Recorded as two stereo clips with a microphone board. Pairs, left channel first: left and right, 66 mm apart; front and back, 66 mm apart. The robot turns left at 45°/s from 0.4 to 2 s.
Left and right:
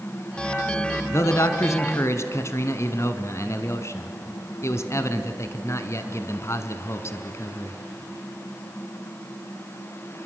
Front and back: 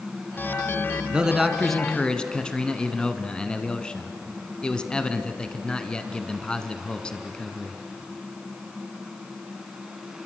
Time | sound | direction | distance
1.1 | a man speaking | 110° left | 1.4 m